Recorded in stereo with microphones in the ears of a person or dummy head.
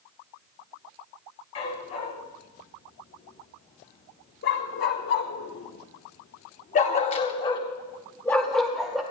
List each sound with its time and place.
1.6 s a dog barking: 45° left (ahead or behind), 3.5 m; by 9.0 s centre (ahead or behind), 1.5 m